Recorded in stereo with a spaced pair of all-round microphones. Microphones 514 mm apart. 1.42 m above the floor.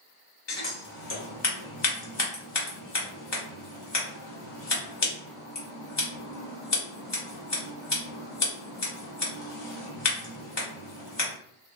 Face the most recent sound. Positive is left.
turn(degrees=55)  # may be behind; listen again after turning